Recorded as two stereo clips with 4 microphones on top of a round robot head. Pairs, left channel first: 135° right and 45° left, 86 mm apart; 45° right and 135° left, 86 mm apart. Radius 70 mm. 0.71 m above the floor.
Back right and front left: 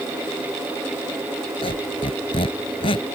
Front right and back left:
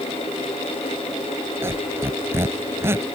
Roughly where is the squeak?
Behind.